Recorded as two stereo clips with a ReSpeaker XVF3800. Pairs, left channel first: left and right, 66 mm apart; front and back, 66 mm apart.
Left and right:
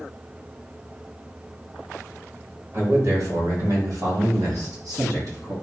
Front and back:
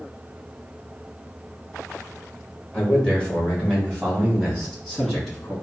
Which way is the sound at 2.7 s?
70° right.